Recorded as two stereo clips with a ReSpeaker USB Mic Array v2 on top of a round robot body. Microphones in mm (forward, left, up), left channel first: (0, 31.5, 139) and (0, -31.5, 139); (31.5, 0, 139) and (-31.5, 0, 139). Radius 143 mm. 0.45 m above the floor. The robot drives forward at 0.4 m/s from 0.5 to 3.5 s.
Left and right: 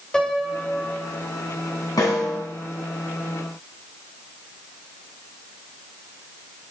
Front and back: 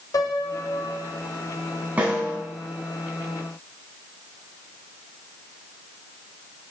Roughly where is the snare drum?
Left.